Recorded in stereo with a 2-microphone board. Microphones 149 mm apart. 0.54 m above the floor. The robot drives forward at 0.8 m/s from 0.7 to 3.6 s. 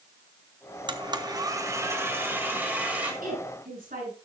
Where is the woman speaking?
70° right (ahead or behind), 8.5 m.